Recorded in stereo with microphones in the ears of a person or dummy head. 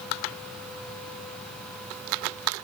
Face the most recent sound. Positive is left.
No sound to turn to.